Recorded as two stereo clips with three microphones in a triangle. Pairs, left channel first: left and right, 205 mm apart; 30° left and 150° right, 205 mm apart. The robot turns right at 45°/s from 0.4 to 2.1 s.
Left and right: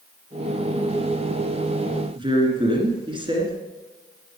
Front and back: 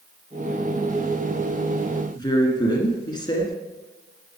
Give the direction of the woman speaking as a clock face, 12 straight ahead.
1 o'clock.